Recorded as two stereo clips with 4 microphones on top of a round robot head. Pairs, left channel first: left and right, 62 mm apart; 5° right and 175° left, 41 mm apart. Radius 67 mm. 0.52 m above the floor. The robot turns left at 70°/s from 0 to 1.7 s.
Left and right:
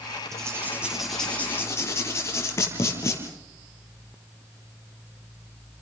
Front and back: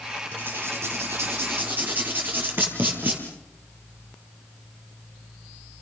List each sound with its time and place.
0.3 s writing: 130° right, 6 m; by 3.2 s 135° left, 6 m